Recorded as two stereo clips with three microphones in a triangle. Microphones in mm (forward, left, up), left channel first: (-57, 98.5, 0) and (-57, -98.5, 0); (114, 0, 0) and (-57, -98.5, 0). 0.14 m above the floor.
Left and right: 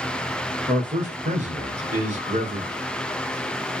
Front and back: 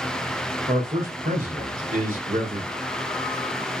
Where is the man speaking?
125° right, 1.9 m.